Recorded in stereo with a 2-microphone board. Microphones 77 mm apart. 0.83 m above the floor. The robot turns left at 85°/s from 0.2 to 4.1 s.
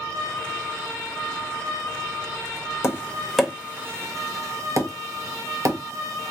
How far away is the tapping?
About 1.0 m.